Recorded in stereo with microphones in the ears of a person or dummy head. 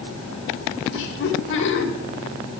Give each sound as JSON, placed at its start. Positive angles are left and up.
{"t": 0.9, "sound": "laughter", "side_deg": 75, "distance_m": 2.5}